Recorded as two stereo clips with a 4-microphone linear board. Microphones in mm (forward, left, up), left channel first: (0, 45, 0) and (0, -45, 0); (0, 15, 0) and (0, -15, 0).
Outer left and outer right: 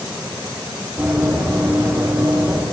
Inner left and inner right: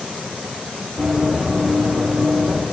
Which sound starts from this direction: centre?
Running footsteps, at 1.0 s.